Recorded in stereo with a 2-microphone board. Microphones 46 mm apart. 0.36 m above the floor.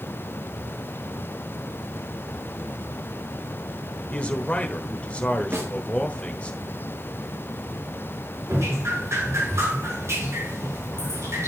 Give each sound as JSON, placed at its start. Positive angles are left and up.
{"t": 4.1, "sound": "a man speaking", "side_deg": 25, "distance_m": 1.2}
{"t": 5.5, "sound": "a snare drum", "side_deg": -60, "distance_m": 4.0}
{"t": 8.5, "sound": "dripping", "side_deg": -75, "distance_m": 6.0}